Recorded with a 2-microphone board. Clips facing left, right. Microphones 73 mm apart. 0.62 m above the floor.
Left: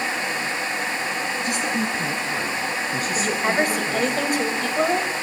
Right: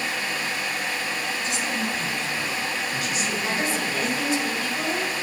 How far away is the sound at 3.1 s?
About 3.5 m.